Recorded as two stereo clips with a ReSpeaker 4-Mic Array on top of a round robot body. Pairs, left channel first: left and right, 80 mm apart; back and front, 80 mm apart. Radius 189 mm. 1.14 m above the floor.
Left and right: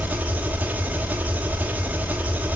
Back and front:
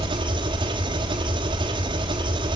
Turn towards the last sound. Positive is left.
turn(degrees=-15)